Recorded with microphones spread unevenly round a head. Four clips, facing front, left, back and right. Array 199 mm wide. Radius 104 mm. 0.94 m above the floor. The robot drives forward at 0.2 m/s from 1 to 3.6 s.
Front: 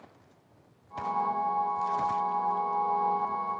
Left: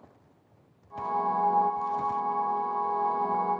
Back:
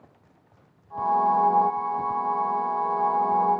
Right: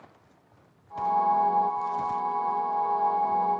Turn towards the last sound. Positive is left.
No sound to turn to.